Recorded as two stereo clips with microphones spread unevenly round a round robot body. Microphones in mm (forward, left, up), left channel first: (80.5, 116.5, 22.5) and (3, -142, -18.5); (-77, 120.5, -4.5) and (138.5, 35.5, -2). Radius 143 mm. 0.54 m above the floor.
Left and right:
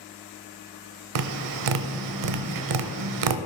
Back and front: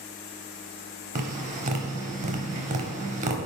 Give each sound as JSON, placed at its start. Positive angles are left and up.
{"t": 1.1, "sound": "tapping", "azimuth_deg": -85, "distance_m": 0.6}